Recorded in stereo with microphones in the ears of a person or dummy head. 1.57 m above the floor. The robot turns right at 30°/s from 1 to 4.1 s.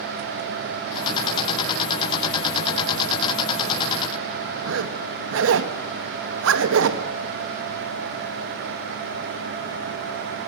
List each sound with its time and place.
4.6 s a zipper: 75° right (ahead or behind), 1.8 m